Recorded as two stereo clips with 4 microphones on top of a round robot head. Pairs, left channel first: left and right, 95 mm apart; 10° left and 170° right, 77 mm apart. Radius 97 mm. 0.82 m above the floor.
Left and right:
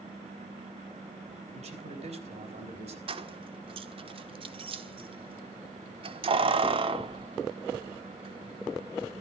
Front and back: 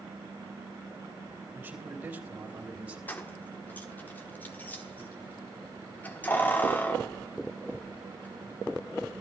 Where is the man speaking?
100° right, 5.5 m; by 3.0 s 95° right, 4 m.